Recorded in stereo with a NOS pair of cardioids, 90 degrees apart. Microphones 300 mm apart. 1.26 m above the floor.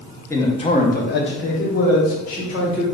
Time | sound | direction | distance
0.3 | a man speaking | 10° left | 0.9 m